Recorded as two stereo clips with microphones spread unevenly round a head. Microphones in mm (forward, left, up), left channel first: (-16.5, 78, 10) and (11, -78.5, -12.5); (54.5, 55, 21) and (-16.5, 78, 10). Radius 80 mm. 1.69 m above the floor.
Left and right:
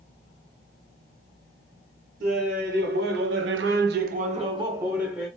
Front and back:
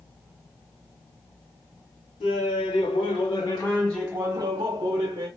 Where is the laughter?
40° right, 1.1 m; by 5.3 s 165° right, 0.8 m.